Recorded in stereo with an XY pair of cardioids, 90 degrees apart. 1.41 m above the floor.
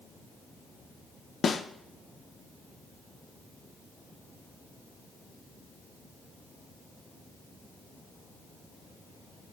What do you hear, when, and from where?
1.4 s a snare drum: 50° left, 0.6 m